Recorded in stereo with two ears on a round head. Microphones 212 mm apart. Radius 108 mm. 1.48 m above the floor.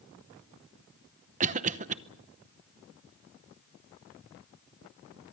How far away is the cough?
About 0.8 m.